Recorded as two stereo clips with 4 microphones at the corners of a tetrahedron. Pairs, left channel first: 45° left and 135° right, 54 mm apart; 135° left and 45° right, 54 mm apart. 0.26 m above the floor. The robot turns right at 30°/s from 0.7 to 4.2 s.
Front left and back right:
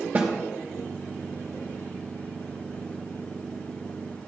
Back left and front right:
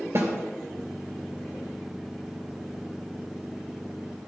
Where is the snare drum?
70° right, 3 m.